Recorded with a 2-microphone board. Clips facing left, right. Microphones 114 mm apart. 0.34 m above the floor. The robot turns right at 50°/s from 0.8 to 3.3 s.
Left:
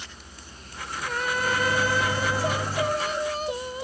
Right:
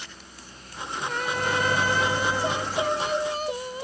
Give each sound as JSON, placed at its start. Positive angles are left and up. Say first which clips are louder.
{"t": 1.3, "sound": "a microwave", "louder": "even", "azimuth_deg": -50, "distance_m": 0.9}